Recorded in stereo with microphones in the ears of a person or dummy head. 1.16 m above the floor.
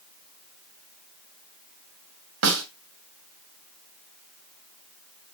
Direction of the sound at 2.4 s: 65° right (ahead or behind).